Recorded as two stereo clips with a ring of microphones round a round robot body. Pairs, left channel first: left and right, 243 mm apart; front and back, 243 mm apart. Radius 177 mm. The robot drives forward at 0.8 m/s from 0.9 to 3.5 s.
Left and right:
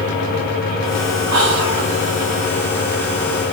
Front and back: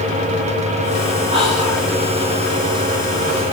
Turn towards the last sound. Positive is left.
turn(degrees=-120)